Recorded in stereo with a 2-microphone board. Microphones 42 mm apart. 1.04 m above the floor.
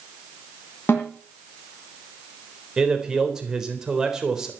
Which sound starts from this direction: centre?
A man speaking, at 2.8 s.